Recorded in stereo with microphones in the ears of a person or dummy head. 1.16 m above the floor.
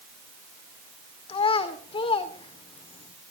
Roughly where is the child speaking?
Left.